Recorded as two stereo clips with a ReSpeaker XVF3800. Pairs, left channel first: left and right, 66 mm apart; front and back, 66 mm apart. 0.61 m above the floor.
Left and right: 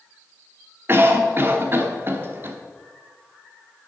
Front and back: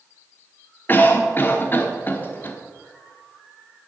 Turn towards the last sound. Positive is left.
turn(degrees=-50)